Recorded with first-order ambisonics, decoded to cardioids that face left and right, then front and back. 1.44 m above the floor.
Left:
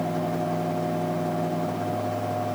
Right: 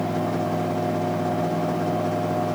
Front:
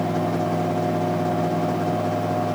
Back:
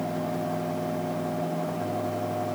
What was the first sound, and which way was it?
Only background noise.